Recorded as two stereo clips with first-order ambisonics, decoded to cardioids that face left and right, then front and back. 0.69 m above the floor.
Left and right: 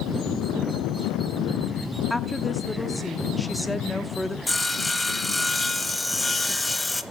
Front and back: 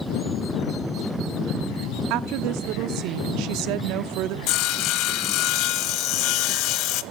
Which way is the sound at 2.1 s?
170° left.